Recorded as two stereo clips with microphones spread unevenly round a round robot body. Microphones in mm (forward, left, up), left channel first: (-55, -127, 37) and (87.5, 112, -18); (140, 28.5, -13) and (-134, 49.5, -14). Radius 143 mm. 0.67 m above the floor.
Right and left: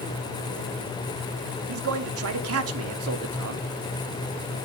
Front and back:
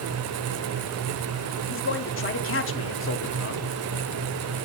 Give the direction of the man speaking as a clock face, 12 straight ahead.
11 o'clock.